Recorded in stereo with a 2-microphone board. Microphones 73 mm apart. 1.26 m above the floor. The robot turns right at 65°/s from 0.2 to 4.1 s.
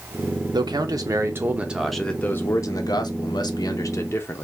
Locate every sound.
0.5 s a man speaking: 90° right, 0.7 m; by 4.4 s 140° left, 0.7 m